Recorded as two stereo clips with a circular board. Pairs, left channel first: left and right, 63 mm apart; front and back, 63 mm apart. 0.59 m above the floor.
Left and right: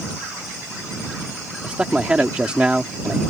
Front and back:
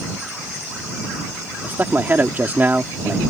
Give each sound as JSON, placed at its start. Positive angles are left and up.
{"t": 1.6, "sound": "a man speaking", "azimuth_deg": -150}